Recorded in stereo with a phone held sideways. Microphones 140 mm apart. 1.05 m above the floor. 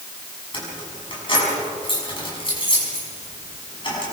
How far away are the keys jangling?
About 6.5 m.